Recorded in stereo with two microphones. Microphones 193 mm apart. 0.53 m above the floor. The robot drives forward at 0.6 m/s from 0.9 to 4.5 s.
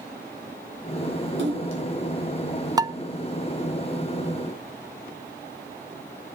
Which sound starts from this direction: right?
A splash, at 1.4 s.